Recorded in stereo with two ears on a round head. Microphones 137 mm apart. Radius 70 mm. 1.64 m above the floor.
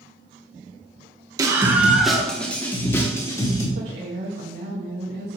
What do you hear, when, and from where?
1.4 s a scream: 25° right (ahead or behind), 1.3 m; by 3.6 s 25° left (ahead or behind), 2.5 m
3.8 s a woman speaking: 85° right, 1.6 m